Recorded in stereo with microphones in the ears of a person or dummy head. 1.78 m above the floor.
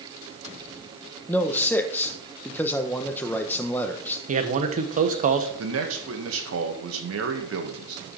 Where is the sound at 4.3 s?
40° right (ahead or behind), 1.2 m.